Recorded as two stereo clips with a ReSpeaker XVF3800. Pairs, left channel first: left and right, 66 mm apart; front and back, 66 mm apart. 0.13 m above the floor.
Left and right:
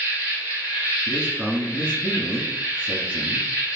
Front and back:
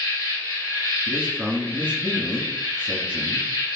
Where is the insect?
25° right, 1.8 m.